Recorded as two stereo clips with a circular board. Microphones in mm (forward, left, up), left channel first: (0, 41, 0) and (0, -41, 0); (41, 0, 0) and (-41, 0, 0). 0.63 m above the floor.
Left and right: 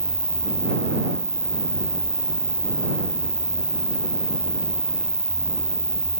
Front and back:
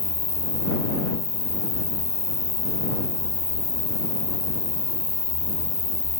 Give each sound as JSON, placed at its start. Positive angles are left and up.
{"t": 0.0, "sound": "an insect", "azimuth_deg": 5}